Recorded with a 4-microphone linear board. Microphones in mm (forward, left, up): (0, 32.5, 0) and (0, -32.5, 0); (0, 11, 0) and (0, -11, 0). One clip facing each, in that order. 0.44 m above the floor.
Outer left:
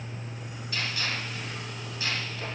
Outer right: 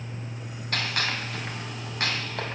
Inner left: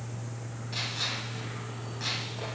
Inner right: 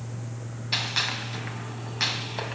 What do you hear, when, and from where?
0.7 s a gunshot: 60° right (ahead or behind), 3.5 m